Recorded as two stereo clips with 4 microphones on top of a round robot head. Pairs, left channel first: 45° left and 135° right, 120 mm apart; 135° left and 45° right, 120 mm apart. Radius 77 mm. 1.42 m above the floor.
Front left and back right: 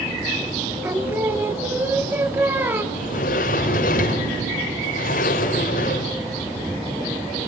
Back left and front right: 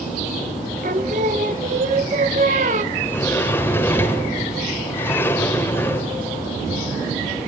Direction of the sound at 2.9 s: 60° left.